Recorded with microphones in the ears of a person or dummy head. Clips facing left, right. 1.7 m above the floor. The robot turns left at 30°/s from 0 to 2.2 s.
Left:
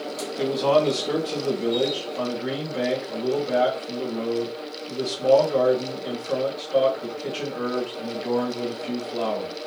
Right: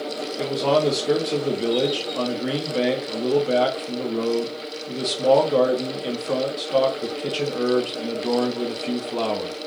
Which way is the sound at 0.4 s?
5° left.